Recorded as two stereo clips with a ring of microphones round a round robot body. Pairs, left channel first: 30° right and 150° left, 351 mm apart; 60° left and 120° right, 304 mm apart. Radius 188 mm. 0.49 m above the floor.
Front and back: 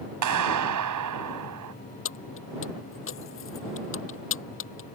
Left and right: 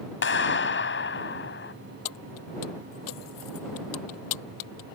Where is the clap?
110° left.